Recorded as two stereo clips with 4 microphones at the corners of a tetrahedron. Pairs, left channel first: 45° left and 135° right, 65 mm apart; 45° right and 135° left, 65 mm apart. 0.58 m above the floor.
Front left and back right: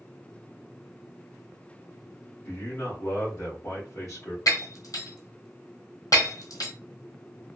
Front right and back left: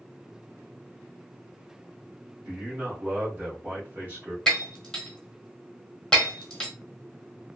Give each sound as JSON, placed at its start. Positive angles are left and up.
{"t": 2.5, "sound": "a man speaking", "azimuth_deg": 80, "distance_m": 1.5}
{"t": 4.5, "sound": "breaking glass", "azimuth_deg": 40, "distance_m": 1.2}